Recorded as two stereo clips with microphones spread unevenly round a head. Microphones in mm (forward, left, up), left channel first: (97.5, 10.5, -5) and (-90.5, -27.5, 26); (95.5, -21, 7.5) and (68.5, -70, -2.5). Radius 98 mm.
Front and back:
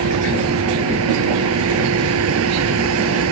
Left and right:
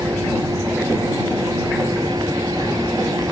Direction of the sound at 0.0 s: 175° left.